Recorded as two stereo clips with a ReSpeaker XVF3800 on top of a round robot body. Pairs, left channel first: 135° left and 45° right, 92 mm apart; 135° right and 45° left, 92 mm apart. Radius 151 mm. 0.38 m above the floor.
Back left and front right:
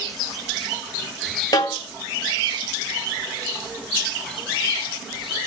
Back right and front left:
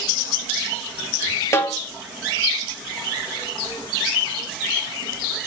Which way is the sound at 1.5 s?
170° left.